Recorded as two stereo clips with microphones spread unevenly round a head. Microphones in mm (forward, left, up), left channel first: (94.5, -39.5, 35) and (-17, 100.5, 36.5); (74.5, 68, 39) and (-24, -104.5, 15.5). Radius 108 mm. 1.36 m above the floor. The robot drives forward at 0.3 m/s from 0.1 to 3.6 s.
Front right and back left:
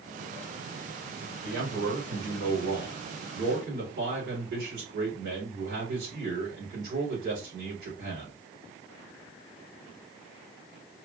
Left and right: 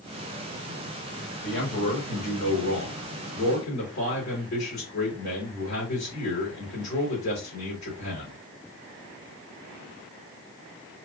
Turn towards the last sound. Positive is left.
turn(degrees=120)